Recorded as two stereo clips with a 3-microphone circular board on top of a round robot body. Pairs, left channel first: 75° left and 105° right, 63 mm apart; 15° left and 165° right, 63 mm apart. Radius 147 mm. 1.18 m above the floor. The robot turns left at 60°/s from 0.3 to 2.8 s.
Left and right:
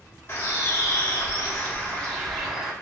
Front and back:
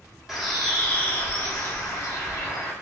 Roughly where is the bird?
Left.